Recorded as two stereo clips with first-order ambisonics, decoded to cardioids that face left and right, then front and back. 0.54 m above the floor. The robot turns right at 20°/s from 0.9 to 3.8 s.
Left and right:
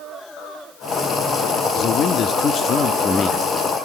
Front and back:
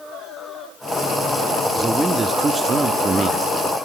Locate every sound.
1.8 s a man speaking: 110° left, 0.7 m; by 3.4 s 140° left, 0.7 m